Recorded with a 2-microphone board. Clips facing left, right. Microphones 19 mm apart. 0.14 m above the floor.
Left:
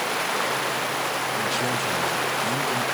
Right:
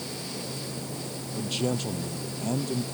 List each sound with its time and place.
0.0 s running water: 90° left
1.4 s a man speaking: 5° right (ahead or behind)